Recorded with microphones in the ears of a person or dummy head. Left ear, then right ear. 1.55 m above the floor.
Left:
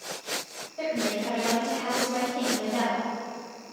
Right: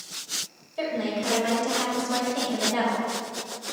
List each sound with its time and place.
0.8 s a woman speaking: 85° right, 2 m; by 3.1 s 45° right (ahead or behind), 2 m